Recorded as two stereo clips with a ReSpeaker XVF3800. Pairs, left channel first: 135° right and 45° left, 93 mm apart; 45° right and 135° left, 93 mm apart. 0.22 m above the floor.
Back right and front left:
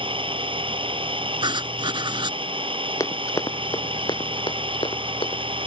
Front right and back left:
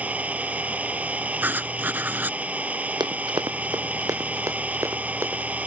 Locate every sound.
0.0 s an engine running: 60° left
1.4 s writing: 65° left
3.0 s running footsteps: 170° left; by 5.4 s 160° right